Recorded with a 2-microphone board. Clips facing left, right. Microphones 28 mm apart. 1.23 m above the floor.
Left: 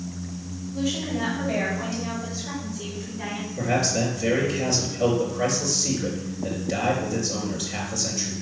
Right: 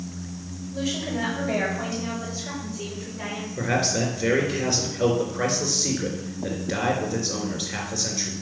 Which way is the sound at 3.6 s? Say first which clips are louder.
Even; 40° right (ahead or behind).